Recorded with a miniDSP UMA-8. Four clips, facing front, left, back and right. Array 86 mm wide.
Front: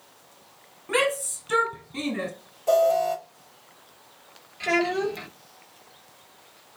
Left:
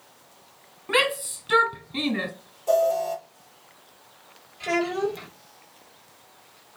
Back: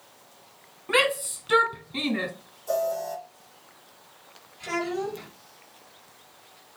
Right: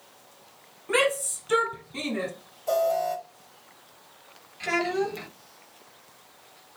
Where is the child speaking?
35° right, 2 m.